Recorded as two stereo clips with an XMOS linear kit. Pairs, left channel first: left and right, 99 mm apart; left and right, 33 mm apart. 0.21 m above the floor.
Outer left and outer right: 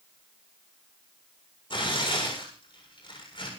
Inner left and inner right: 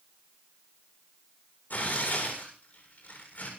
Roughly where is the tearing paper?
Left.